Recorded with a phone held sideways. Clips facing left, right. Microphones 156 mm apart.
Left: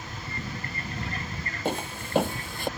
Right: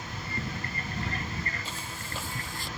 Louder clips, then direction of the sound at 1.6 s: Left 10 dB; 65° left (ahead or behind).